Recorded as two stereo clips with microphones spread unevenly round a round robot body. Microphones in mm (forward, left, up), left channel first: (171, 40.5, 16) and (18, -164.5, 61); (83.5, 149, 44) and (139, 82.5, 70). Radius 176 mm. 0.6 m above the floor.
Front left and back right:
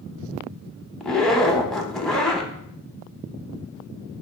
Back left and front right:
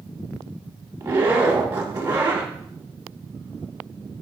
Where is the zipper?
40° right, 0.6 m.